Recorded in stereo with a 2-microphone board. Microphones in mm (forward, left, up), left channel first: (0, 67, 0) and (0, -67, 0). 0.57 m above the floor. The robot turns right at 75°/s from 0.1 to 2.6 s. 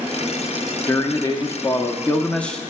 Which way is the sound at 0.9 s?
15° left (ahead or behind).